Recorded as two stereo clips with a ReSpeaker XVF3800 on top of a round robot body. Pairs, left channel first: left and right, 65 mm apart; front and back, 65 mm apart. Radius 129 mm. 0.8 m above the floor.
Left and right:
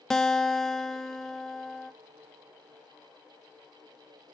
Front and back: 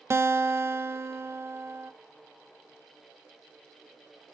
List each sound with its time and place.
0.1 s a guitar: 170° left, 0.9 m